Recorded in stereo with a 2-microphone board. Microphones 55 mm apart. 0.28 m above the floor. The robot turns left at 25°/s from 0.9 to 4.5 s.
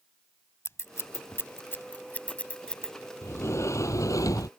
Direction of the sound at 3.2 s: 130° left.